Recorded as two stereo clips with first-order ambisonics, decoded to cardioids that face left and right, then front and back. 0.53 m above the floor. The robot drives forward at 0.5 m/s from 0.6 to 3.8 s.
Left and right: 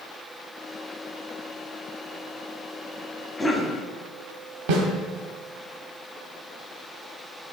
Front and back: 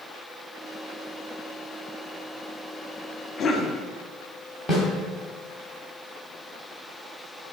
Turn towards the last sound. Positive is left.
turn(degrees=-95)